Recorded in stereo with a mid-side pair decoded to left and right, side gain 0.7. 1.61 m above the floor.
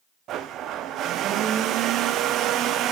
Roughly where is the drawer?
No drawer in this recording.